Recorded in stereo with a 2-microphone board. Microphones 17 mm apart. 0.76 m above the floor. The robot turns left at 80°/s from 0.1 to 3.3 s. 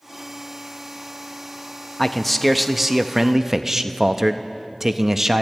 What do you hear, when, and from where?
2.0 s a man speaking: 30° left, 0.5 m; by 5.4 s 75° right, 0.5 m